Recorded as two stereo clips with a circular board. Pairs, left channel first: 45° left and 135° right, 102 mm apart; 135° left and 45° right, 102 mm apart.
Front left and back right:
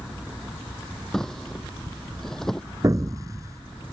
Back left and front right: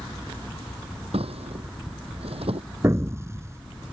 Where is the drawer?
40° right.